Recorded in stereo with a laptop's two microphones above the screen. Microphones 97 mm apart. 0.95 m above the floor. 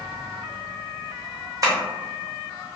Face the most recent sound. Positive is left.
turn(degrees=-35)  # may be behind; listen again after turning